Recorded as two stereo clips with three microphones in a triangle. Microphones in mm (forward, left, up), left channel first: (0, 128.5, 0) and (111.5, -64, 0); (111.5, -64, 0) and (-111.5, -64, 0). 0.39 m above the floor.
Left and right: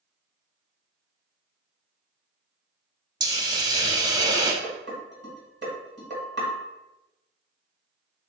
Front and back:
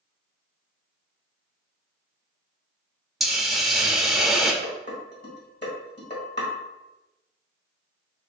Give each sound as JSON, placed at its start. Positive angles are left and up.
{"t": 3.2, "sound": "a hiss", "azimuth_deg": -95, "distance_m": 0.6}
{"t": 4.6, "sound": "dishes clattering", "azimuth_deg": -30, "distance_m": 1.3}